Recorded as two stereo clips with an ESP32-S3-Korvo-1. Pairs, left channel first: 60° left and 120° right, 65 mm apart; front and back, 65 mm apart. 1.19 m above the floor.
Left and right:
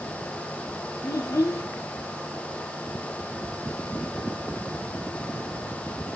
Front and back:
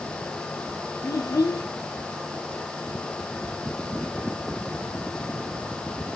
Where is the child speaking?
25° left, 0.8 m.